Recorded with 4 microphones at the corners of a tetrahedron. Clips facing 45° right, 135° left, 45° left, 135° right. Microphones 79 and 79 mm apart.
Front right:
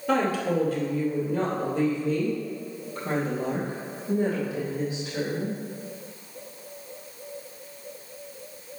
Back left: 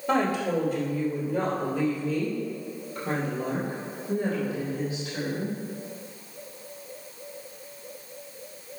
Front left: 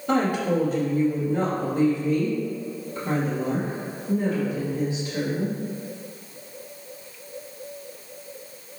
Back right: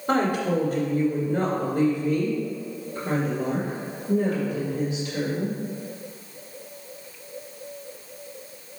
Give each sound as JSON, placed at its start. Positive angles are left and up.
{"t": 0.1, "sound": "a woman speaking", "azimuth_deg": -120, "distance_m": 2.0}